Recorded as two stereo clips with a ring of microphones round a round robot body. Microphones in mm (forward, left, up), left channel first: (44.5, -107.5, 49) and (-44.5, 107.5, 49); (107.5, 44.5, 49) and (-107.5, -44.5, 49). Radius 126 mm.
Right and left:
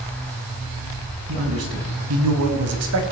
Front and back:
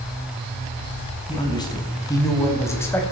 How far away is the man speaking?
About 5 m.